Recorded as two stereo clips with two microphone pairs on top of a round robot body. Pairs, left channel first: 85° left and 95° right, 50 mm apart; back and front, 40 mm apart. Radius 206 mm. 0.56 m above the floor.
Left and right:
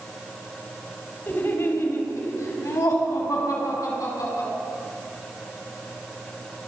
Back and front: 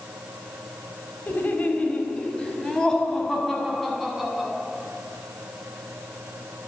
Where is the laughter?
135° left, 3.5 m; by 4.5 s 85° left, 6.5 m.